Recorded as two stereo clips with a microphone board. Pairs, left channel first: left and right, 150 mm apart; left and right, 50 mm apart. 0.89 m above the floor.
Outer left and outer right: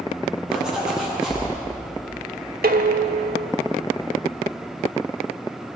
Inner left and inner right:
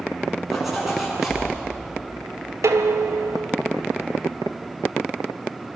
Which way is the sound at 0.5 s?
5° right (ahead or behind).